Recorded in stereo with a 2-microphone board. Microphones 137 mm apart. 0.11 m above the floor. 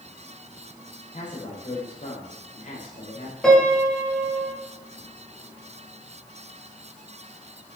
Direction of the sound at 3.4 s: 5° left (ahead or behind).